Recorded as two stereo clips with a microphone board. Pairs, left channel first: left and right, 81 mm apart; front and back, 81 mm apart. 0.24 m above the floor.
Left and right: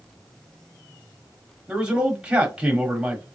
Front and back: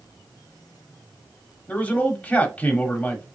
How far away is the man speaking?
About 1.1 m.